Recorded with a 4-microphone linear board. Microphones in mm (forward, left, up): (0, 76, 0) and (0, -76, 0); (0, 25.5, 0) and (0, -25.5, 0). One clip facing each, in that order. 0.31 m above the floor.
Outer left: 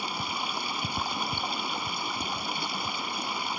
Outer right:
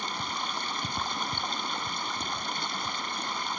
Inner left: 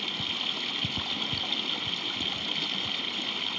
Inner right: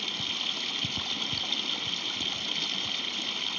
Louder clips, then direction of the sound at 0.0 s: Outer left 1 dB, inner left 1 dB; 10° left (ahead or behind).